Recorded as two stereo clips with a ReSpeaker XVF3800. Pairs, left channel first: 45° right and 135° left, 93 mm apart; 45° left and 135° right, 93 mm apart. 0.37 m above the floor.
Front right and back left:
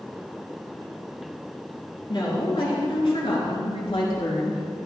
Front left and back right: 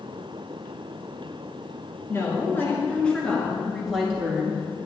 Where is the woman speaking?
15° right, 4.5 m; by 4.9 s 65° right, 4.5 m.